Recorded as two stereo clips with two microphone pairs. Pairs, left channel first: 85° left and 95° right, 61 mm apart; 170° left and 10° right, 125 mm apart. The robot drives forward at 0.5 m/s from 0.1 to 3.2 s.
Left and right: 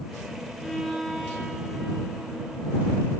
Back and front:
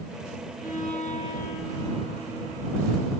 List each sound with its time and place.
0.6 s a violin: 175° left, 2.5 m